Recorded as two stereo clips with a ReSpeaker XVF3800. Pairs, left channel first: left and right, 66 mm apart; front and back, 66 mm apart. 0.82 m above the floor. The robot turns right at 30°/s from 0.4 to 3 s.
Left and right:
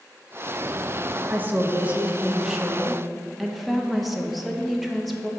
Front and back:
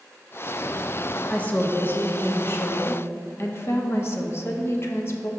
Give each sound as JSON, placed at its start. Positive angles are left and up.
{"t": 1.3, "sound": "a woman speaking", "azimuth_deg": -50, "distance_m": 0.7}